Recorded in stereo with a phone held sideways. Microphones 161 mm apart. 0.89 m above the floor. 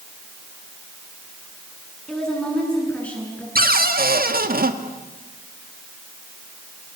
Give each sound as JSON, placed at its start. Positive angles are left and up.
{"t": 2.1, "sound": "a woman speaking", "side_deg": 5, "distance_m": 7.5}
{"t": 3.5, "sound": "a cupboard door", "side_deg": -65, "distance_m": 1.6}